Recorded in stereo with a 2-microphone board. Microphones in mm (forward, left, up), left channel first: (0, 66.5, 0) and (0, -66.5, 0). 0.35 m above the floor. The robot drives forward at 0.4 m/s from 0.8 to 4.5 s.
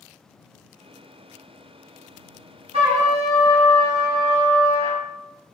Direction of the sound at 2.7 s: 50° right (ahead or behind).